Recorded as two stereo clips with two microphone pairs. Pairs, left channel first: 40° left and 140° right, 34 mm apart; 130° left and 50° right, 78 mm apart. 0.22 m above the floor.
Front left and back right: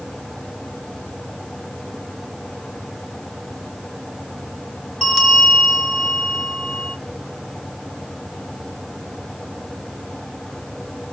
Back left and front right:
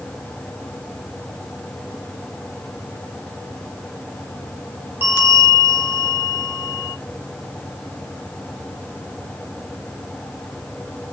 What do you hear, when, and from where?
5.0 s a bell: 45° right, 1.0 m